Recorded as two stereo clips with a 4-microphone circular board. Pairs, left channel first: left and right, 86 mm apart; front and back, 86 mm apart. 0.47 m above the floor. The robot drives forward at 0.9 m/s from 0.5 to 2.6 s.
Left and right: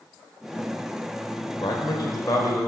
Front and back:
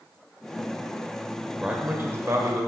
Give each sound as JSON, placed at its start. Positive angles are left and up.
{"t": 1.6, "sound": "a man speaking", "azimuth_deg": 100, "distance_m": 1.3}